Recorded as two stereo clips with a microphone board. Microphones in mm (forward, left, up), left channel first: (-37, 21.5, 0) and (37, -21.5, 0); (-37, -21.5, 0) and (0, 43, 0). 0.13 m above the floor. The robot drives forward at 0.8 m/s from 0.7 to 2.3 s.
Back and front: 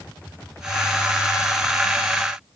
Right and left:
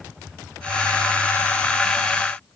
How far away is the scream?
I don't hear a scream.